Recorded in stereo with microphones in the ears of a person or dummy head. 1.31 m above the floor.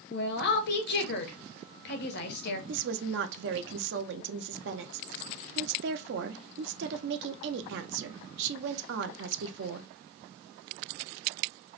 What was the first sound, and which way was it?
A woman speaking, 55° left (ahead or behind).